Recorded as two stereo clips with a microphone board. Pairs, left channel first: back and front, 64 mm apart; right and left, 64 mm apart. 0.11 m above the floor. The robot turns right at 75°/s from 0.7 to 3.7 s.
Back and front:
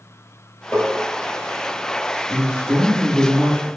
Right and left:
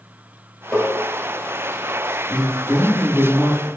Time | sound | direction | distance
0.7 | tapping | 150° right | 1.4 m
2.3 | a man speaking | 110° left | 1.8 m